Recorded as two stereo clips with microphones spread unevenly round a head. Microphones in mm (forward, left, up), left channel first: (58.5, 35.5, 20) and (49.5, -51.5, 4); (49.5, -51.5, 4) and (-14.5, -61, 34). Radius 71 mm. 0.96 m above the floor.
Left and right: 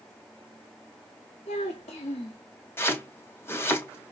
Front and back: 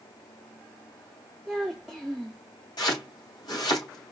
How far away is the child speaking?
About 1.0 m.